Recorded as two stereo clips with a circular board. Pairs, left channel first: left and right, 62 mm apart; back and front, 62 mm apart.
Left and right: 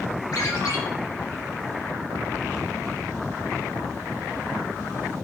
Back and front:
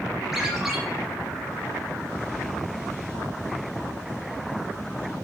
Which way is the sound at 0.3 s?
85° left.